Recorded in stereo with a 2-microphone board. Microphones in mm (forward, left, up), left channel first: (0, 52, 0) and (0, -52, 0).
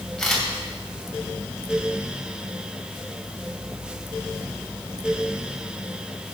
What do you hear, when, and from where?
0.2 s a camera shutter: 5° left (ahead or behind), 3 m